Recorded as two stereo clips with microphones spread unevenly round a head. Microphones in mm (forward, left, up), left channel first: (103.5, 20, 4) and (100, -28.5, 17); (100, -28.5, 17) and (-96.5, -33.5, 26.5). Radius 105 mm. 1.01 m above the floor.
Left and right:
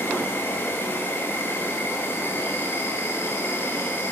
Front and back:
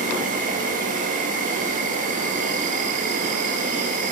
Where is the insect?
130° left, 2.5 m.